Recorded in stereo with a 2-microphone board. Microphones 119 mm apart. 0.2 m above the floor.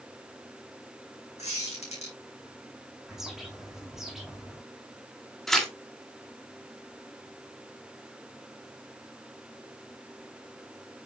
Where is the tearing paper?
Centre (ahead or behind), 2.5 m.